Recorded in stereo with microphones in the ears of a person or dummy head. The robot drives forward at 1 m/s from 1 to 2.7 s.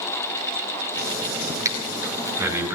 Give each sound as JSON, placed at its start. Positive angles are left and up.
{"t": 1.6, "sound": "breathing", "side_deg": -15, "distance_m": 2.5}